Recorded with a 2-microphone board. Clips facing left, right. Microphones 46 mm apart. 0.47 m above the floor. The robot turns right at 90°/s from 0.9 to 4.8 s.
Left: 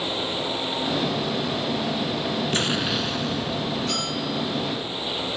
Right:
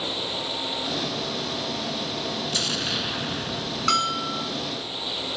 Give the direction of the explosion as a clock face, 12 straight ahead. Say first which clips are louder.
Left 4 dB; 7 o'clock.